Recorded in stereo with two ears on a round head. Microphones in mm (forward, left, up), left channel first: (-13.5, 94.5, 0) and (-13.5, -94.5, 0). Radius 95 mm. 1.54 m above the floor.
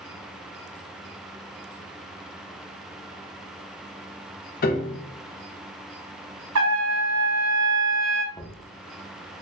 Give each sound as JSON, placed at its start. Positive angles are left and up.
{"t": 4.6, "sound": "a piano", "side_deg": 45, "distance_m": 0.6}
{"t": 6.5, "sound": "a trumpet", "side_deg": -80, "distance_m": 1.0}
{"t": 8.3, "sound": "knocking", "side_deg": 25, "distance_m": 0.6}